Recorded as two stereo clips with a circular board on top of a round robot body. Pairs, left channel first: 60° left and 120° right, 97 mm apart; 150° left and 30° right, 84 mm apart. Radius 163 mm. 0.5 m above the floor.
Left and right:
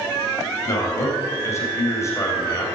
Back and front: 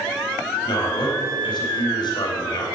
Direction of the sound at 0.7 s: 120° left.